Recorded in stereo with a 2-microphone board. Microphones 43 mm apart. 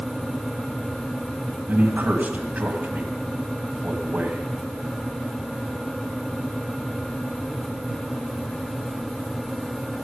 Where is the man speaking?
40° right (ahead or behind), 1.9 m.